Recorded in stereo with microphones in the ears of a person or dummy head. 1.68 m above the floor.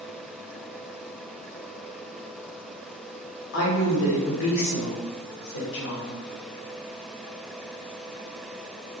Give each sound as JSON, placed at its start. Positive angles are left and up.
{"t": 3.5, "sound": "a woman speaking", "side_deg": 75, "distance_m": 0.9}